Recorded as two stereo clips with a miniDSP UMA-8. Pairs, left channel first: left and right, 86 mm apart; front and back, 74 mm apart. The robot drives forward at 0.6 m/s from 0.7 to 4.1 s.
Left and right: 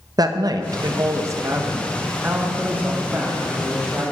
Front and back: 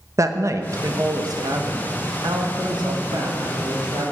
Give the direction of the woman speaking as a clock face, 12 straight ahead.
4 o'clock.